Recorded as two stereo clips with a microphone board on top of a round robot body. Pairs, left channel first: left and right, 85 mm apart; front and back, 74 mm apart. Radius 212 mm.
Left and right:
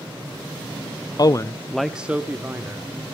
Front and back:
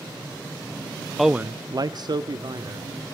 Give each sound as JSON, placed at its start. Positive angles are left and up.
{"t": 1.2, "sound": "a man speaking", "azimuth_deg": 90, "distance_m": 0.8}